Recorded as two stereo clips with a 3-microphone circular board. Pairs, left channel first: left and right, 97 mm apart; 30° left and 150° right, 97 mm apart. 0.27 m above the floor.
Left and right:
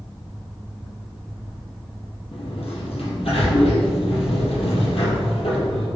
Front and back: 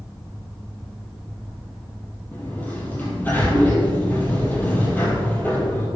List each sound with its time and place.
2.3 s a sliding door: 100° left, 2.5 m